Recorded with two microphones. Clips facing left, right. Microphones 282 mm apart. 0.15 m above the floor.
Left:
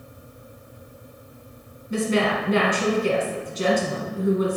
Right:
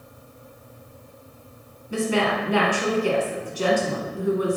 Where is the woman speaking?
25° left (ahead or behind), 1.3 m.